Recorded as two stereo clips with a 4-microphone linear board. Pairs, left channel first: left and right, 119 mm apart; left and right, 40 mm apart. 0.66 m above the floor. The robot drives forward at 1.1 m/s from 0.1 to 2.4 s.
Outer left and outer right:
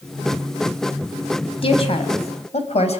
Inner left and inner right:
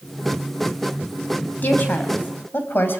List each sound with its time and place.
1.6 s a woman speaking: 50° left (ahead or behind), 4 m; by 3.0 s 60° left (ahead or behind), 3.5 m